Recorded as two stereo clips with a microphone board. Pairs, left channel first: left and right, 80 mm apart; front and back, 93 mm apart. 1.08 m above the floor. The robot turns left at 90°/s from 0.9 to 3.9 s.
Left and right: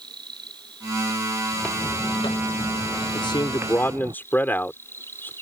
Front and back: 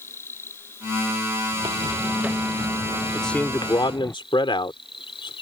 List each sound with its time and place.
0.0 s an insect: 65° right; by 5.4 s 25° left
1.5 s footsteps: straight behind; by 4.2 s 70° right
3.1 s a man speaking: 90° left; by 5.3 s 25° left